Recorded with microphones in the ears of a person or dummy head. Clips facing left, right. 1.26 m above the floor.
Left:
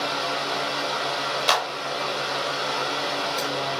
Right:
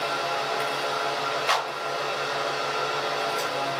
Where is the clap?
60° left (ahead or behind), 0.8 m.